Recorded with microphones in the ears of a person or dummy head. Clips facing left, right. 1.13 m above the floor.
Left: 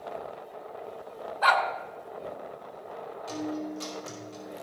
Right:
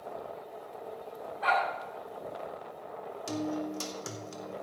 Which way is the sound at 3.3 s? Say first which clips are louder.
Even; 55° right (ahead or behind).